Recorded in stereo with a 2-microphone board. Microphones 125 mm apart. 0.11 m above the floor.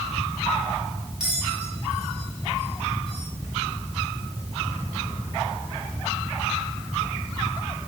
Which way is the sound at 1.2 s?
5° right (ahead or behind).